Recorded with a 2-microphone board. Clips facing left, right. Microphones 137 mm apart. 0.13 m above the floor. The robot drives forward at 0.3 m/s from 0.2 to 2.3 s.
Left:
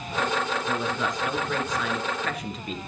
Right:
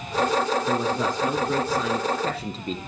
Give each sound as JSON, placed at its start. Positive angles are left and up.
{"t": 0.7, "sound": "a man speaking", "side_deg": -35, "distance_m": 1.3}